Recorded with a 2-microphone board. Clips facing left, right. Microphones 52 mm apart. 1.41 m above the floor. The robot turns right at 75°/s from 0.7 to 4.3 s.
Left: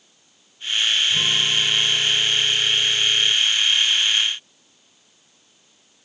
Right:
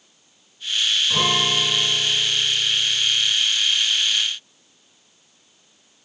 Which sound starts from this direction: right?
A guitar, at 1.1 s.